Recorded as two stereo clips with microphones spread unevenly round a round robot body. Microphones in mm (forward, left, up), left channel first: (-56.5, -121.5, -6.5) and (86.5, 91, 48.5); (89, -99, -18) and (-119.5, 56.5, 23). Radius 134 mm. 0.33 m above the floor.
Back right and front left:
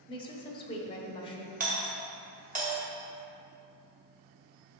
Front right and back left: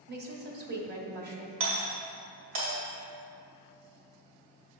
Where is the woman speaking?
170° right, 1.3 m.